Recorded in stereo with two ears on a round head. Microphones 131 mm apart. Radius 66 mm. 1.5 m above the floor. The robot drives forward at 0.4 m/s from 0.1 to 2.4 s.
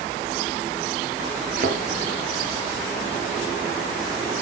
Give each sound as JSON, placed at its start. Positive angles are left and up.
{"t": 1.6, "sound": "a thud", "side_deg": -60, "distance_m": 4.0}